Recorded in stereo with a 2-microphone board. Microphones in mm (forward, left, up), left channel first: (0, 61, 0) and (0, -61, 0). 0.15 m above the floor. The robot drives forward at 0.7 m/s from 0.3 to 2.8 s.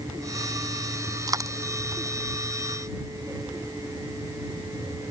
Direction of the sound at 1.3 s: 30° right (ahead or behind).